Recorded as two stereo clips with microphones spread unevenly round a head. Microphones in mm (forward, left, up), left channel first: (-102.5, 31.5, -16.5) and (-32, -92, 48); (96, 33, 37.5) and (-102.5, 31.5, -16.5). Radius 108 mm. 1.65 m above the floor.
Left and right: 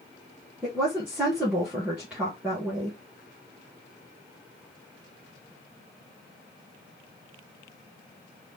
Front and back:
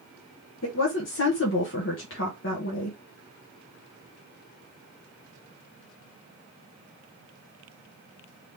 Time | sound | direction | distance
0.6 | a woman speaking | 20° left | 1.3 m